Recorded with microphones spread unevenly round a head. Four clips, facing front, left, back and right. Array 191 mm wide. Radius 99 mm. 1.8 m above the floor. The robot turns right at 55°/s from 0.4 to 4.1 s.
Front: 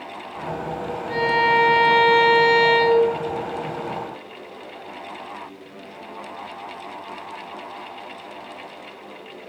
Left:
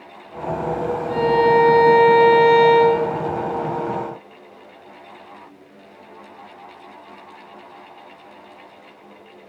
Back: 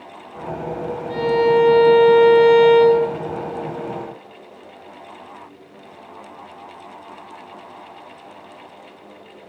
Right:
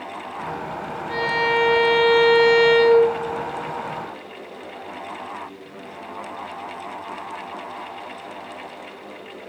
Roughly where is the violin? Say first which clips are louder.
Left 7 dB, back 3 dB; ahead.